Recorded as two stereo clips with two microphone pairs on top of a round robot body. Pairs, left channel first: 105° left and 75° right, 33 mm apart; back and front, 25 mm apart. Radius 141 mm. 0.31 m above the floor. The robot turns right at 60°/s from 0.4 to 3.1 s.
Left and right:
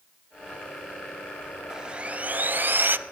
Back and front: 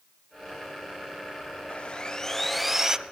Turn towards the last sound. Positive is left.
turn(degrees=-60)